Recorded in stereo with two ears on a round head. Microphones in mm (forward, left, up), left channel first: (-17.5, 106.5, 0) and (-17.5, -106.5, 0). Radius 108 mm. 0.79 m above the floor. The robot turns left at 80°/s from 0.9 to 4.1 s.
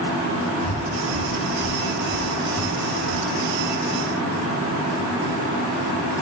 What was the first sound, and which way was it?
Breathing, 70° left (ahead or behind).